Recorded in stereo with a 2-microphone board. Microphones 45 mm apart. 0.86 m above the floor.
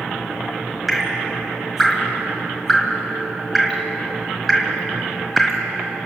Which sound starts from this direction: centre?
Dripping, at 0.9 s.